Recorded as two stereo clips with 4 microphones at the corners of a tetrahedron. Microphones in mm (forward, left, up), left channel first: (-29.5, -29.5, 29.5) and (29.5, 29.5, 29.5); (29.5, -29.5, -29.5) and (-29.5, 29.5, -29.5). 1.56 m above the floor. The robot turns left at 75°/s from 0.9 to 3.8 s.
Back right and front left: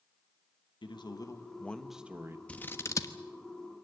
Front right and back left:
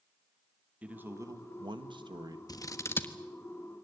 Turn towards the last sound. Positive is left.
turn(degrees=-160)